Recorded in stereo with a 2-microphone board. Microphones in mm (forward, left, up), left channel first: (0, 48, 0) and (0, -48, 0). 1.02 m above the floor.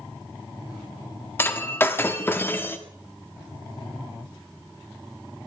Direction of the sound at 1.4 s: 20° left (ahead or behind).